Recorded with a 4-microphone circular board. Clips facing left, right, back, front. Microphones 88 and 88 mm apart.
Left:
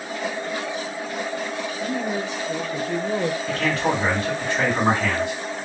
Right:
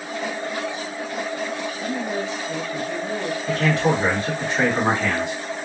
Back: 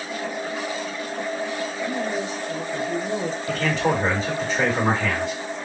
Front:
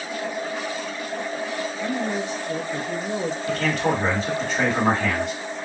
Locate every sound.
1.8 s a man speaking: 5° left, 1.1 m; by 3.4 s 75° left, 0.6 m
3.5 s a man speaking: 20° right, 1.9 m